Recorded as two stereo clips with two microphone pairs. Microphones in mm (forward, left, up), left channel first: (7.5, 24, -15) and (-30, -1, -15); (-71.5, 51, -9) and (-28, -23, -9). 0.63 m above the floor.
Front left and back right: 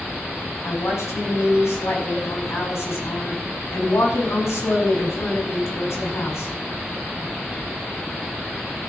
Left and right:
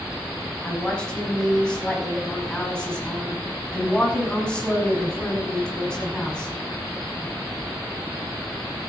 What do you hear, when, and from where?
0.6 s a woman speaking: 40° left, 5.5 m